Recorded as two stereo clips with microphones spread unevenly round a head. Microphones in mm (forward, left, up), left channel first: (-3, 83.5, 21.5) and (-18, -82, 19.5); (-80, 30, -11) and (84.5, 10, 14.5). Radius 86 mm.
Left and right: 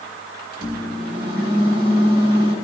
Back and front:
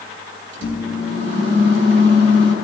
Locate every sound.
0.5 s a microwave: 30° right, 1.9 m